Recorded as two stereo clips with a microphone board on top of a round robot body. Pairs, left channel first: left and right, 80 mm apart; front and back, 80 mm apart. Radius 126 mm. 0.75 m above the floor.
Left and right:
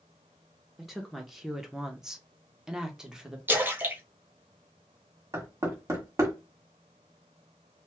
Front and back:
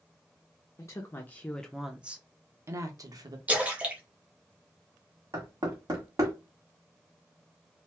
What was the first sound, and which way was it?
A woman speaking, 5° right.